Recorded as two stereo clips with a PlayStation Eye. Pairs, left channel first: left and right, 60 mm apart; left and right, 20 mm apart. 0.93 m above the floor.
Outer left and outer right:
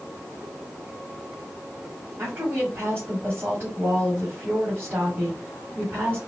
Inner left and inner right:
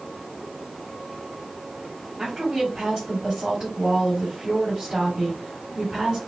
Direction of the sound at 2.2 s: 40° right (ahead or behind).